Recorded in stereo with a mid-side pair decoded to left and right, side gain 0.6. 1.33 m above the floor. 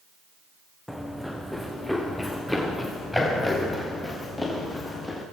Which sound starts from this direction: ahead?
Running footsteps, at 0.9 s.